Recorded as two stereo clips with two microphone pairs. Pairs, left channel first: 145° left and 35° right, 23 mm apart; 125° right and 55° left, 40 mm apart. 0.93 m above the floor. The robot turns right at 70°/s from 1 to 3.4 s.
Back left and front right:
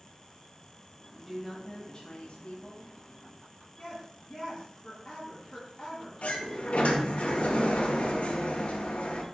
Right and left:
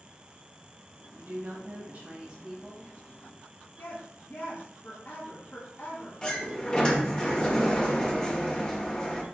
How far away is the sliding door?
About 1.7 m.